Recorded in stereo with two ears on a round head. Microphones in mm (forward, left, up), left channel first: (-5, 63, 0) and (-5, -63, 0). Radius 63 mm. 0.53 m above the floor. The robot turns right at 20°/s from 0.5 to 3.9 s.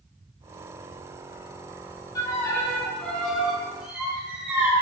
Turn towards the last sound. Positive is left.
turn(degrees=-175)